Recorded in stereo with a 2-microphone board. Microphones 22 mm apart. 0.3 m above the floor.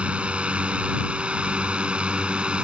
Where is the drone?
55° right (ahead or behind); by 2.6 s 45° right (ahead or behind).